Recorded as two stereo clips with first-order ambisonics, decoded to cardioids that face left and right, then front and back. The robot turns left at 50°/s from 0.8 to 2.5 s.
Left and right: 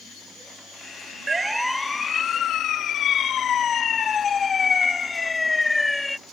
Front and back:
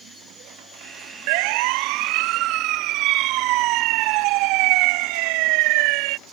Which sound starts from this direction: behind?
A siren, at 1.3 s.